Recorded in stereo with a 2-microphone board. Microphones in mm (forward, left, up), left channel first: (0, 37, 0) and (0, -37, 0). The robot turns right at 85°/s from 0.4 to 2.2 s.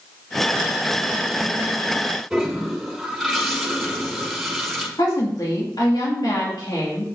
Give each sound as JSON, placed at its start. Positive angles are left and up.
{"t": 2.3, "sound": "a toilet flushing", "side_deg": 0, "distance_m": 1.5}
{"t": 5.0, "sound": "a woman speaking", "side_deg": 65, "distance_m": 2.0}